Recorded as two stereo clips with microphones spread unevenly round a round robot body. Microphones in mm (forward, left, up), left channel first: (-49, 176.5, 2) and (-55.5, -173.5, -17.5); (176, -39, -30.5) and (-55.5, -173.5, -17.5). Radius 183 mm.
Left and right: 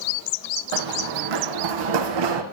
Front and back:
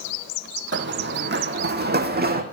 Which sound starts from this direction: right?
Running footsteps, at 0.7 s.